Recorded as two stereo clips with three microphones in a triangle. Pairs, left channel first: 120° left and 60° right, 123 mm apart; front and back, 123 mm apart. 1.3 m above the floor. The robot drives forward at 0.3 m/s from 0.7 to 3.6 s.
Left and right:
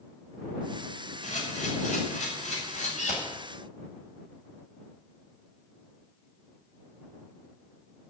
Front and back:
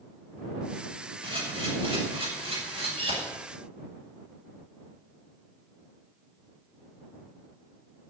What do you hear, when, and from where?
1.2 s a camera shutter: 135° left, 6.5 m; by 3.2 s 140° left, 7 m